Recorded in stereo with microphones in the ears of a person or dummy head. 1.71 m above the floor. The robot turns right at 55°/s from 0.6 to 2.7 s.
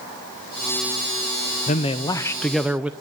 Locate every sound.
1.7 s a man speaking: 125° left, 0.7 m; by 2.9 s straight behind, 0.7 m